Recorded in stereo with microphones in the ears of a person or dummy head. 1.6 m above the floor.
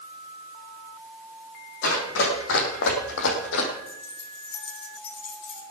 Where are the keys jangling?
85° left, 5 m.